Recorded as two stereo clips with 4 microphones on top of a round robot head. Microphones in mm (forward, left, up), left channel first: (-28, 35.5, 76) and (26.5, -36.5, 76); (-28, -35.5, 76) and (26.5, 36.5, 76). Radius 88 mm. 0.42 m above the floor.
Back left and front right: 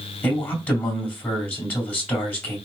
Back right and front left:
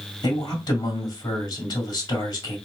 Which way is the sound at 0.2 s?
160° right.